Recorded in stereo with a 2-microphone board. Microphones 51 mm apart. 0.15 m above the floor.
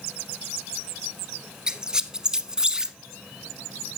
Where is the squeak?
15° right (ahead or behind), 0.5 m.